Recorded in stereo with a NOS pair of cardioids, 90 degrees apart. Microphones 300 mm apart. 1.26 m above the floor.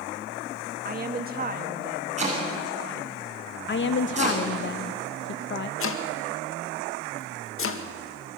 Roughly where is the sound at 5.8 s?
Ahead left.